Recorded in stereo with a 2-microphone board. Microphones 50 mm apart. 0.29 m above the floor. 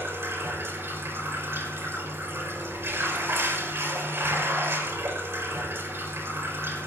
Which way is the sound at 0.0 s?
55° right (ahead or behind).